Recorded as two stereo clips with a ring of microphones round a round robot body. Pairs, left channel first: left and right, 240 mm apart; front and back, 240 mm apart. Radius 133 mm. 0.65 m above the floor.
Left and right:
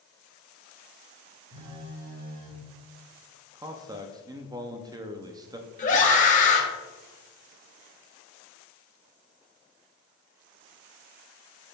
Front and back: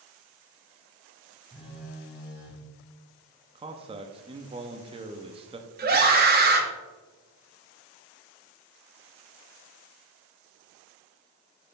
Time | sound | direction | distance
1.5 | a phone buzzing | 95° right | 3.5 m
3.5 | a man speaking | 145° right | 0.6 m
5.8 | a scream | 140° left | 1.0 m